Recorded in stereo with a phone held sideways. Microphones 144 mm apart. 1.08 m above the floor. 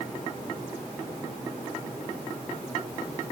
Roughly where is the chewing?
I don't hear chewing.